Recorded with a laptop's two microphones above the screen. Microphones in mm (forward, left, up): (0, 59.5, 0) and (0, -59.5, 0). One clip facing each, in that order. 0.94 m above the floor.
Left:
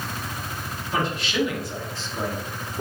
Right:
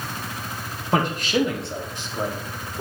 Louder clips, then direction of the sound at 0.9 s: Right 4 dB; 55° right (ahead or behind).